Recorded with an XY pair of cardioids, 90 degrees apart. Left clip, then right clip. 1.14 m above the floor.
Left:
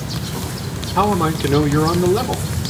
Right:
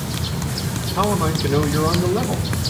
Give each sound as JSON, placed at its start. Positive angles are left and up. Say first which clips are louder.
{"t": 0.9, "sound": "a man speaking", "louder": "left 4 dB", "azimuth_deg": 60, "distance_m": 4.0}